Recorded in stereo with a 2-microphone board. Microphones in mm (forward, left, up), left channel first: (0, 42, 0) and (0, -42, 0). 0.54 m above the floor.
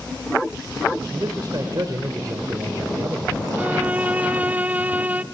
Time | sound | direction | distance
1.1 | a man speaking | 50° right (ahead or behind) | 2.5 m
3.6 | a violin | 20° right (ahead or behind) | 0.6 m